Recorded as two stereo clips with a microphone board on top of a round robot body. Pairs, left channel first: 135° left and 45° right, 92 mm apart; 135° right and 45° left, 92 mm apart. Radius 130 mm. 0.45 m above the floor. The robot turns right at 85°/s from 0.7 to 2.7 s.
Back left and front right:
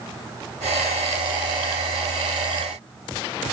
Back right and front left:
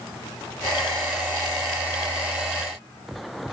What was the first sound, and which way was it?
Only background noise.